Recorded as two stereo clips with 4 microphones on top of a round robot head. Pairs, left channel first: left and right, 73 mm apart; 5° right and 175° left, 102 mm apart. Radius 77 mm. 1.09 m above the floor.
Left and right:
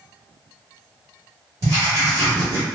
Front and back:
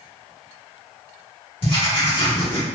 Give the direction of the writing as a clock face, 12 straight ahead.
1 o'clock.